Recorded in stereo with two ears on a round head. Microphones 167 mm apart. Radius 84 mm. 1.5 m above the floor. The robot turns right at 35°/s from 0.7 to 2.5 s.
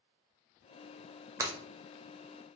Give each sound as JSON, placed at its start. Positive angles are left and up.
{"t": 1.4, "sound": "breaking glass", "side_deg": -15, "distance_m": 0.8}